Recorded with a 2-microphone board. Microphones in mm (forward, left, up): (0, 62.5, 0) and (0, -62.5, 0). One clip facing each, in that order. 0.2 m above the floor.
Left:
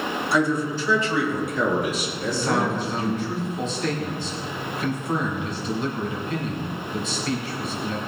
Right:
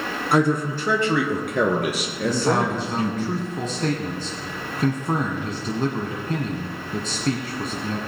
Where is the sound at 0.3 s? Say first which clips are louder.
Right 3 dB; 55° right (ahead or behind), 1.6 m; by 3.2 s 75° right (ahead or behind), 3.5 m.